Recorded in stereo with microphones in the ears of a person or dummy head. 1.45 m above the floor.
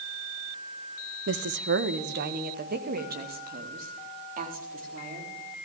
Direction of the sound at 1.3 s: 60° right (ahead or behind).